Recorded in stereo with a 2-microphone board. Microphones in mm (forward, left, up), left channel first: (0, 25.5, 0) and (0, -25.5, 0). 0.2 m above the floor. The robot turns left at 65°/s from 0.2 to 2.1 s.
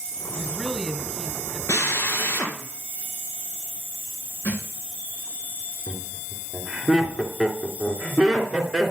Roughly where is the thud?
Left.